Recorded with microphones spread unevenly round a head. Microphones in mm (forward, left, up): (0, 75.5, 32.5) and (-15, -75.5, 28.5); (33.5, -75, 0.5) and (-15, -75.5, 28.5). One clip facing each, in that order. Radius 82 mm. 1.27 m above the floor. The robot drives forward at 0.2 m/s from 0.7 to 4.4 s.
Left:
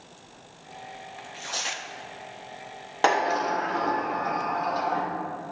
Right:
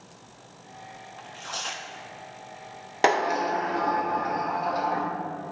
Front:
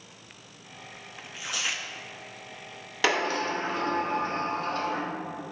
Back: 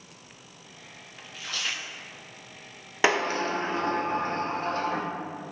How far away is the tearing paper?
About 0.6 m.